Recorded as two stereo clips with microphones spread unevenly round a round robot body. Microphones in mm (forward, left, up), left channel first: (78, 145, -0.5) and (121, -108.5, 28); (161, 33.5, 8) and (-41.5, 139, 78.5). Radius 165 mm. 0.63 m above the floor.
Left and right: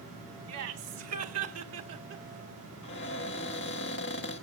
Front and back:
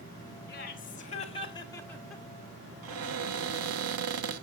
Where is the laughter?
60° right, 2 m; by 2.2 s 105° right, 1.3 m.